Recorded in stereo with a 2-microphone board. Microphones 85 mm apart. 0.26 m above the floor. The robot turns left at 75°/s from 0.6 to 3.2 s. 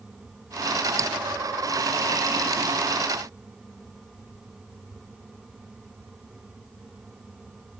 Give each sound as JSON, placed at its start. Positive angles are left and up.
{"t": 1.0, "sound": "dripping", "side_deg": -40}